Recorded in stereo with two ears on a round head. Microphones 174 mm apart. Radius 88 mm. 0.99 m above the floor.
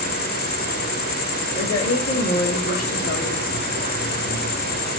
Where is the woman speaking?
80° left, 3 m.